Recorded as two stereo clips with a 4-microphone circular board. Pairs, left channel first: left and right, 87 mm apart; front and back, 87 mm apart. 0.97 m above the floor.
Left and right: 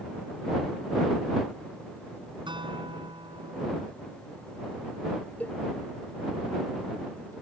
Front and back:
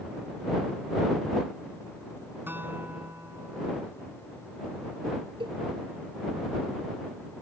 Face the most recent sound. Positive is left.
turn(degrees=165)